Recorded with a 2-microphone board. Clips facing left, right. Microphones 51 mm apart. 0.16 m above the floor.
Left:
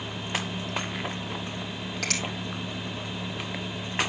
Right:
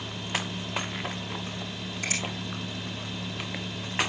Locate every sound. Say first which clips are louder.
2.0 s a finger snap: left 1 dB; 75° left (ahead or behind), 3.5 m